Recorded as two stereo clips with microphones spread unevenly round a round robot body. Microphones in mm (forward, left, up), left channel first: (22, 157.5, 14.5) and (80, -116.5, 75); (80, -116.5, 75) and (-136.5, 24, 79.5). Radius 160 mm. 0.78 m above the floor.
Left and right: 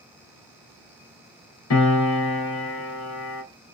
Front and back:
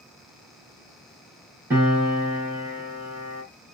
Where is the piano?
65° left, 2 m.